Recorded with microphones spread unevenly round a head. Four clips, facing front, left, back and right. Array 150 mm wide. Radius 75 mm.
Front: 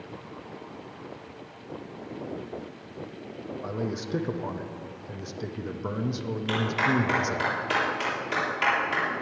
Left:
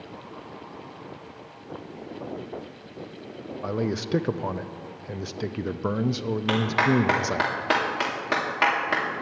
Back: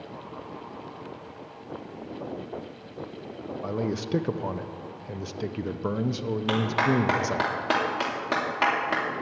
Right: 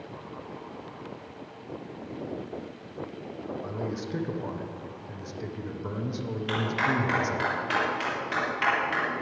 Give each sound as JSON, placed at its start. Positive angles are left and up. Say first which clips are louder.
{"t": 3.6, "sound": "a man speaking", "louder": "left 9 dB, back 3 dB", "azimuth_deg": 115, "distance_m": 0.6}
{"t": 6.5, "sound": "a clap", "louder": "left 5 dB, back 1 dB", "azimuth_deg": 140, "distance_m": 2.5}